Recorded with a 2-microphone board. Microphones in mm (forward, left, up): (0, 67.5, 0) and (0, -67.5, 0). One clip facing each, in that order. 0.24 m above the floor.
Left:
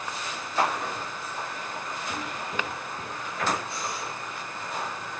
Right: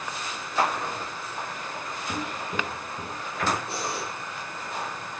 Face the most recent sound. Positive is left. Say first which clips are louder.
# right 2 dB
turn(degrees=-70)  # may be behind; listen again after turning